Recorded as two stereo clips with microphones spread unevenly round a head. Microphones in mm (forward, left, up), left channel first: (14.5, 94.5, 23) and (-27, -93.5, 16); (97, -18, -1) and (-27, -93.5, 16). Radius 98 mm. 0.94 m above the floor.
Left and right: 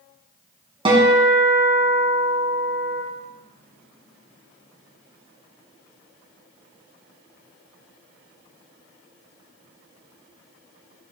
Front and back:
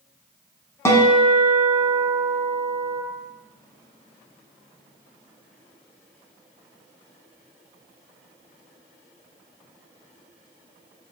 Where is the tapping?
No tapping in this recording.